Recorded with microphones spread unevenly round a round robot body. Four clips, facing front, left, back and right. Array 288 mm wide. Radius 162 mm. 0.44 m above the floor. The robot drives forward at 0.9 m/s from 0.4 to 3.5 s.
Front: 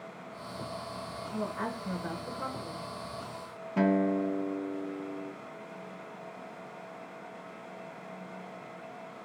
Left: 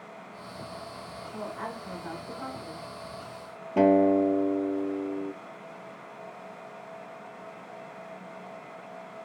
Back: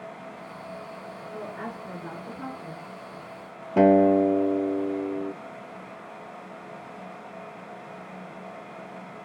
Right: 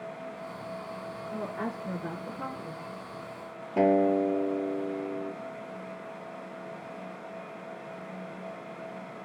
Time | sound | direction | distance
1.3 | a woman speaking | 100° right | 6 m
3.8 | a guitar | 170° left | 0.7 m